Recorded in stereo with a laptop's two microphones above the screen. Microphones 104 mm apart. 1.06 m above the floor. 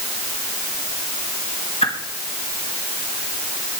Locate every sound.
1.8 s a whoosh: 75° left (ahead or behind), 1.9 m